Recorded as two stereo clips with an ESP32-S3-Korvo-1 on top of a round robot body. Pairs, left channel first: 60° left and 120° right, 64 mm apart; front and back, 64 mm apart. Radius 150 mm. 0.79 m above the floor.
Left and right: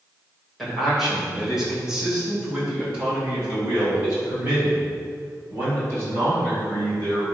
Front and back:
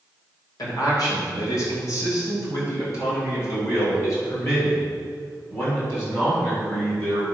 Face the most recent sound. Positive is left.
turn(degrees=-60)